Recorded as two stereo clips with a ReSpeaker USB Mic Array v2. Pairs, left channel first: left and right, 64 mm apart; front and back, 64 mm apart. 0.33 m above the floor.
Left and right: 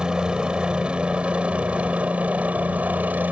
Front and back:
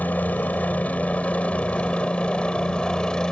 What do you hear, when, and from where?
0.0 s a helicopter: 25° right; by 3.3 s 65° right